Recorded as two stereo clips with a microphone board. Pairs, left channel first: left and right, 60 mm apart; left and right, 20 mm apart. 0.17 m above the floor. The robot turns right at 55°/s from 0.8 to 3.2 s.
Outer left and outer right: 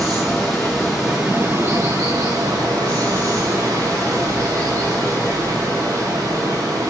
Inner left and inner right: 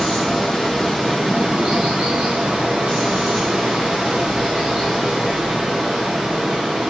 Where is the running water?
175° left, 7.5 m; by 6.9 s 55° right, 7.5 m.